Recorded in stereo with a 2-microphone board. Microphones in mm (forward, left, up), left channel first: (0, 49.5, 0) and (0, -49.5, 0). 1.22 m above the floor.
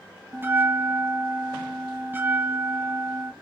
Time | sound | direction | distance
0.3 | a bell | 20° right (ahead or behind) | 0.6 m